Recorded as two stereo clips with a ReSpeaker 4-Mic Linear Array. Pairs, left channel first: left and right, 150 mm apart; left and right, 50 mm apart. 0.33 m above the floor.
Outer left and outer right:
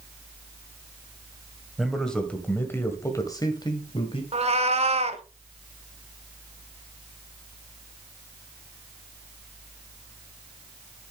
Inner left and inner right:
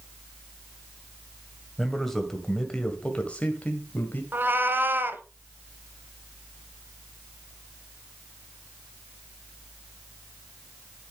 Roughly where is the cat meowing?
Right.